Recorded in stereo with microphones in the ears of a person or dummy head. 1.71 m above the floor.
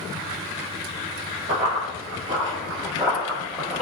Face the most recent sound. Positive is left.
turn(degrees=-5)  # may be behind; listen again after turning